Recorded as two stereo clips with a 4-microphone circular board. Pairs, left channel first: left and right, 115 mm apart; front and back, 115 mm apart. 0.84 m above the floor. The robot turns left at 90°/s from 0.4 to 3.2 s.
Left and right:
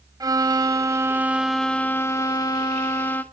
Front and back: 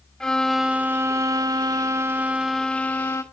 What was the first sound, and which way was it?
A violin, 75° right.